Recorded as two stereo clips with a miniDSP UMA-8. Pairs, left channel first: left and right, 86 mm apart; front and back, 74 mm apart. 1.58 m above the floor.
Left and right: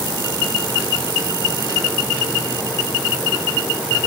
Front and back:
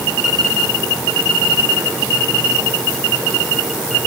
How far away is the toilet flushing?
No toilet flushing in this recording.